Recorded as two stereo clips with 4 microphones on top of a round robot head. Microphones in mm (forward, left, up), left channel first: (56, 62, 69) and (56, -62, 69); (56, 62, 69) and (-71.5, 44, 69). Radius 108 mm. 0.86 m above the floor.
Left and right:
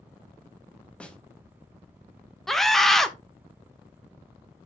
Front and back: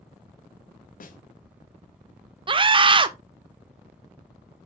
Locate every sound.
1.0 s a snare drum: 10° left, 1.2 m
2.5 s a scream: 175° left, 0.6 m